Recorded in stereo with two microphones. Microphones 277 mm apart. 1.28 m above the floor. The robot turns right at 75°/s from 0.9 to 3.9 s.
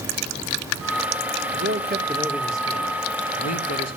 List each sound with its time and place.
1.5 s a man speaking: 65° right, 1.7 m; by 4.0 s 115° left, 1.7 m